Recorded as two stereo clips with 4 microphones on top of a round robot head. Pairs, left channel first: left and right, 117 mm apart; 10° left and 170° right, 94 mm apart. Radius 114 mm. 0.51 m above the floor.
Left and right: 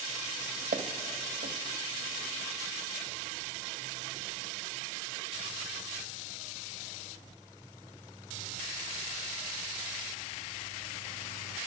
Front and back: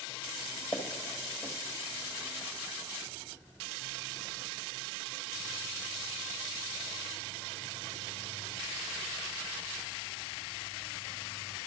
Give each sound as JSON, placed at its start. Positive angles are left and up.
{"t": 0.7, "sound": "footsteps", "azimuth_deg": -65, "distance_m": 1.2}